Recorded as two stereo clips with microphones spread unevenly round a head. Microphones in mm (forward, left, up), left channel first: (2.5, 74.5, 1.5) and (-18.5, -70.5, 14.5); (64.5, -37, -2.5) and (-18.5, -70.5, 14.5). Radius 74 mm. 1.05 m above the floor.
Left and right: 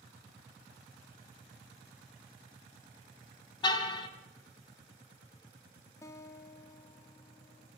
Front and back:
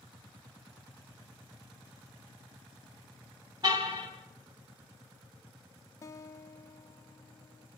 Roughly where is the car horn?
Behind left.